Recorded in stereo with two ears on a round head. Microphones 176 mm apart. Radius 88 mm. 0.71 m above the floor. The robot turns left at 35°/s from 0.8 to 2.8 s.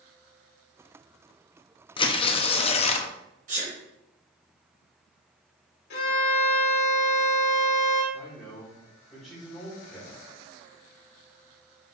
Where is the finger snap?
I don't hear a finger snap.